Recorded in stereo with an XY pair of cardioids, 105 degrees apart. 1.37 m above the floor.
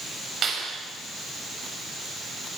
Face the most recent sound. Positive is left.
turn(degrees=-50)